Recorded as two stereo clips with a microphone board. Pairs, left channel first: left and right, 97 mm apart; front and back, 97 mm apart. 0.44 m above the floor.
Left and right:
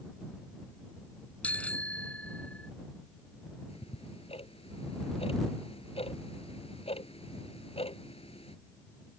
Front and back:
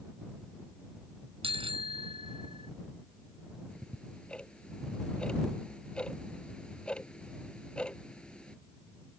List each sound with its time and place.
1.4 s a bicycle bell: 165° left
3.7 s ticking: 80° left